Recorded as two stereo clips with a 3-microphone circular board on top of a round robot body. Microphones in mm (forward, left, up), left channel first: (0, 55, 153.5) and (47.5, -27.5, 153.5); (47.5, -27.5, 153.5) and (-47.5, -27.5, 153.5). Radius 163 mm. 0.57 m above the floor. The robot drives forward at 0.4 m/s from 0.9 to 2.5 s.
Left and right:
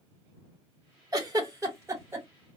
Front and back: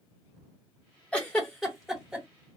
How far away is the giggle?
About 1.3 m.